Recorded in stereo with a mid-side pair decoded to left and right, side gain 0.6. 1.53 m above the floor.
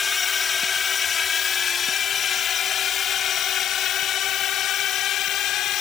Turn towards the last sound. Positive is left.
turn(degrees=60)